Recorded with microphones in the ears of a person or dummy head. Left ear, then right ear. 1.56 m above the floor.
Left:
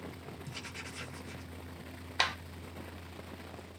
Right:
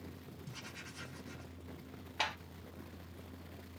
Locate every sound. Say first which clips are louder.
0.5 s writing: left 5 dB; 40° left (ahead or behind), 1.0 m
2.2 s a clap: left 6 dB; 40° left (ahead or behind), 0.8 m